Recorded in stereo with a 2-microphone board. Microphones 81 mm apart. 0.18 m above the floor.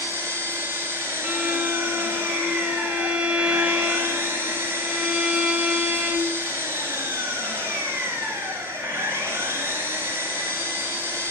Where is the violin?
15° right (ahead or behind), 0.8 m.